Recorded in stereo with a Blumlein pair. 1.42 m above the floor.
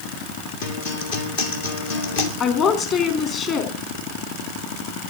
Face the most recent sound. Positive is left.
turn(degrees=30)